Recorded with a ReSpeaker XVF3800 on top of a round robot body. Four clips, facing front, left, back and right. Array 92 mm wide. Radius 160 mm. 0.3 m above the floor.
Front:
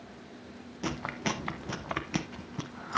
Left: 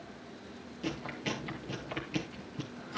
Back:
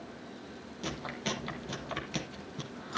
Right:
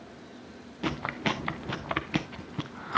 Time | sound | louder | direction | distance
0.8 | chewing | right 7 dB, front 4 dB | 65° right | 0.9 m